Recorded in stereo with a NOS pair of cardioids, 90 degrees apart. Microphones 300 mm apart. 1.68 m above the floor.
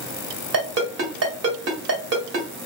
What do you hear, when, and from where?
0.5 s a ringtone: 55° right, 1.8 m